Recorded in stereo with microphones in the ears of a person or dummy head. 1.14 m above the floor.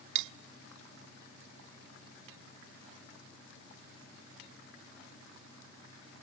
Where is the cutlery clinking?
70° right (ahead or behind), 0.7 m.